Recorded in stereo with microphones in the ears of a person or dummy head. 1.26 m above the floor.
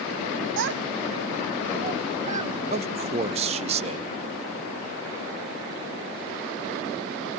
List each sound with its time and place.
0.6 s a child speaking: 65° right (ahead or behind), 0.7 m; by 2.6 s 30° right (ahead or behind), 2 m
2.7 s a man speaking: 30° right (ahead or behind), 0.6 m